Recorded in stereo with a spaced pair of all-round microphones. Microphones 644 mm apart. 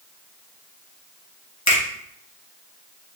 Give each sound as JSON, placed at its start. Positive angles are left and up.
{"t": 1.7, "sound": "a finger snap", "side_deg": 25, "distance_m": 1.4}